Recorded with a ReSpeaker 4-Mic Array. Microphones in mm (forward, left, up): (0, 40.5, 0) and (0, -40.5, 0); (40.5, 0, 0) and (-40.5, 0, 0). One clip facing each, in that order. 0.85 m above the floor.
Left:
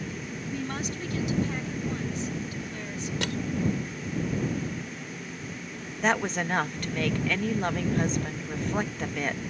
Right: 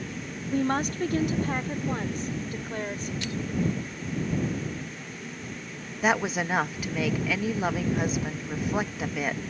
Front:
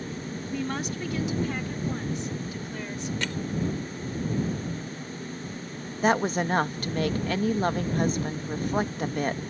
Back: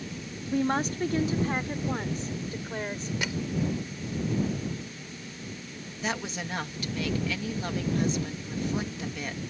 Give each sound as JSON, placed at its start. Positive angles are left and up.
{"t": 0.5, "sound": "a woman speaking", "azimuth_deg": -125}
{"t": 3.2, "sound": "crushing", "azimuth_deg": 100}
{"t": 6.0, "sound": "a woman speaking", "azimuth_deg": -10}